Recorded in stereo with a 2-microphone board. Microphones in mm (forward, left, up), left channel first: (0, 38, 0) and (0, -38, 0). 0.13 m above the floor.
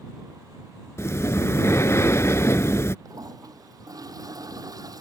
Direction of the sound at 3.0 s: 55° right (ahead or behind).